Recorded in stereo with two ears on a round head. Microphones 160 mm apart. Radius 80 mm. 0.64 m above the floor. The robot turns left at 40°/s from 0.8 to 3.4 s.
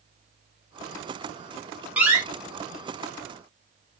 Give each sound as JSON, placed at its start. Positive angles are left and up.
{"t": 2.0, "sound": "a door slam", "side_deg": -5, "distance_m": 0.8}